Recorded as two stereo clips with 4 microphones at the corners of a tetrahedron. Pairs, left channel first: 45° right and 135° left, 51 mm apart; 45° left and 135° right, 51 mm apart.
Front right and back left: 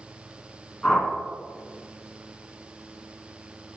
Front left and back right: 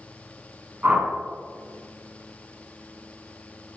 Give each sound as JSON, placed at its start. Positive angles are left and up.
{"t": 0.8, "sound": "a whoosh", "azimuth_deg": -110, "distance_m": 1.6}